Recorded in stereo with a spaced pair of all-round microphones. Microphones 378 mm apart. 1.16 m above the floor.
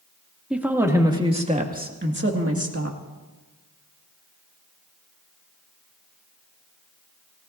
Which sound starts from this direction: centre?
A woman speaking, at 0.5 s.